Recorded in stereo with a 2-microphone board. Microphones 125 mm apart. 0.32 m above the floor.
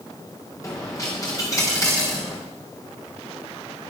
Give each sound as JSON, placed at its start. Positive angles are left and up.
{"t": 0.6, "sound": "a dropped coin", "side_deg": 30, "distance_m": 5.0}